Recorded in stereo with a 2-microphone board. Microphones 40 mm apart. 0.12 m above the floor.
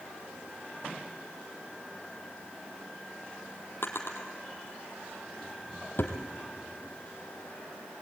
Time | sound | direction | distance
3.8 | a drawer | 65° left (ahead or behind) | 2.5 m